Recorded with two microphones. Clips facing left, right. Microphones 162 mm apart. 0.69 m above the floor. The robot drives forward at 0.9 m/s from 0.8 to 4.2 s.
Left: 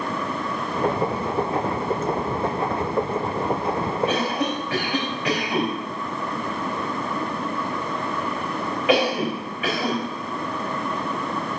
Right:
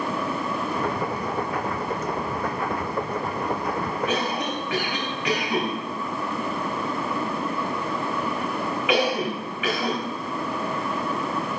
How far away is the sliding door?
No sliding door in this recording.